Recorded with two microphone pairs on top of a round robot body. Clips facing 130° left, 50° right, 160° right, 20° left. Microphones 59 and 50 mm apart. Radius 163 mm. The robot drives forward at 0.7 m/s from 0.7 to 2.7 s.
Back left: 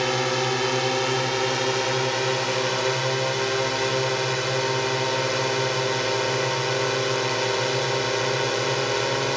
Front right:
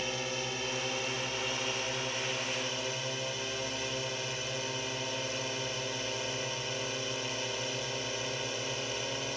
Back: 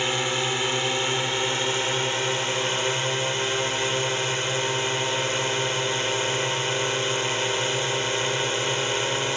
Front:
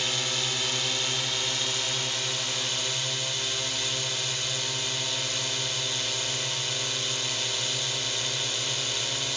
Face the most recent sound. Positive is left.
turn(degrees=145)